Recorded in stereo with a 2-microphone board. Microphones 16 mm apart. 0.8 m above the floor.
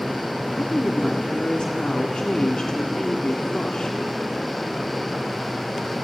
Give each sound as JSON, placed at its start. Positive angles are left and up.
{"t": 0.5, "sound": "a woman speaking", "side_deg": 70, "distance_m": 1.7}